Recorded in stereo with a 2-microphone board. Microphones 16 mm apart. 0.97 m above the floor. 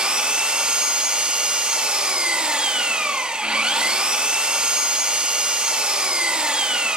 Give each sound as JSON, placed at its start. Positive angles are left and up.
{"t": 0.0, "sound": "an engine running", "side_deg": -70, "distance_m": 1.2}